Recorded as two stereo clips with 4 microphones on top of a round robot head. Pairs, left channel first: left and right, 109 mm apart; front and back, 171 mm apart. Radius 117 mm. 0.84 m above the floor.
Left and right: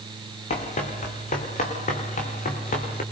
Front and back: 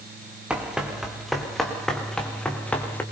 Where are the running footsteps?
95° left, 5 m; by 3.0 s 80° left, 5 m.